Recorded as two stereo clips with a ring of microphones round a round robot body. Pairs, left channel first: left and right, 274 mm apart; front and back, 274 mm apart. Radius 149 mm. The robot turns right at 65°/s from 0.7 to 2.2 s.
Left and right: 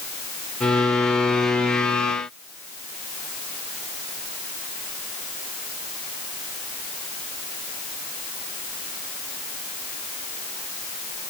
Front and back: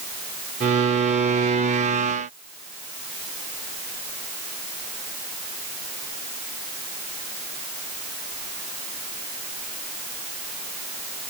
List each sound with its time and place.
Only background noise.